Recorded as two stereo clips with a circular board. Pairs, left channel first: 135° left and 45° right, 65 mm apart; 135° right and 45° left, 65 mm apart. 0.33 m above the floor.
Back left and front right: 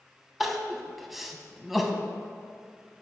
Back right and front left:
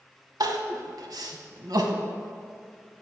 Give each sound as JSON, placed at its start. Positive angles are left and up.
{"t": 0.4, "sound": "crying", "azimuth_deg": 40, "distance_m": 0.6}